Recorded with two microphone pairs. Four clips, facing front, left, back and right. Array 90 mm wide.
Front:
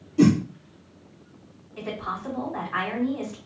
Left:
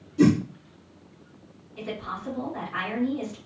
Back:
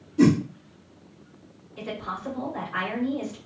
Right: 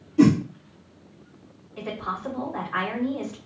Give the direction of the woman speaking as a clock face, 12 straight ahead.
2 o'clock.